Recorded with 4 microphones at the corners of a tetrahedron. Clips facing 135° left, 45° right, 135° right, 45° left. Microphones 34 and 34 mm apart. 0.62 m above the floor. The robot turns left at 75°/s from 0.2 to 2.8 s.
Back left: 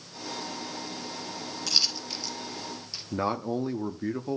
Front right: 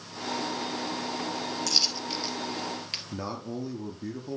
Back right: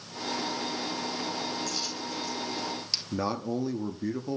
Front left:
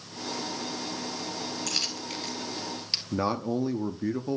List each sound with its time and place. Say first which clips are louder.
1.7 s a dropped coin: back left 2 dB, front left 1 dB; 60° left, 1.5 m; by 3.0 s 25° right, 1.5 m
3.1 s a man speaking: back left 9 dB, front left 3 dB; 115° left, 0.6 m